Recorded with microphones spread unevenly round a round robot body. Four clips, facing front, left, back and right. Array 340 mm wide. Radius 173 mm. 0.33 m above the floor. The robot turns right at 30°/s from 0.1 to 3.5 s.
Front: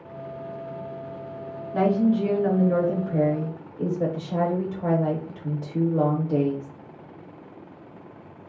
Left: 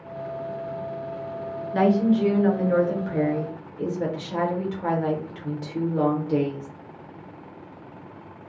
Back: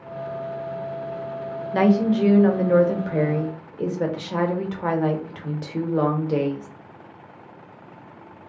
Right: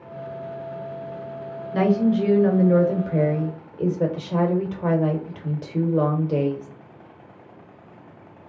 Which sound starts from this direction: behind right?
A woman speaking, at 1.7 s.